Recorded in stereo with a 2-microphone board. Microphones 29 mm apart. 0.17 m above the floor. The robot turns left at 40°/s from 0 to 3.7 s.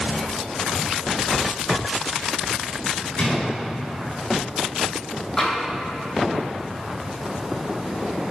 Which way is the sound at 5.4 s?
15° left (ahead or behind).